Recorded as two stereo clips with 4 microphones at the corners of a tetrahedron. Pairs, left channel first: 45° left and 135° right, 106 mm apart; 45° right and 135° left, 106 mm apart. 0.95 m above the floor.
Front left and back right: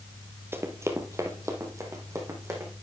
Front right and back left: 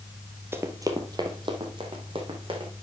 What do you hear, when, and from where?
0.5 s running footsteps: straight behind, 1.1 m; by 2.7 s 165° left, 3 m